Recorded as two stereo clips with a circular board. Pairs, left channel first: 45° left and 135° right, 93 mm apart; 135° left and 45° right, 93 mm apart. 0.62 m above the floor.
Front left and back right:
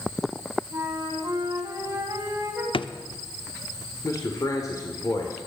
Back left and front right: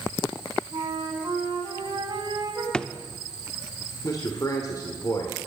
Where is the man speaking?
90° left, 1.9 m.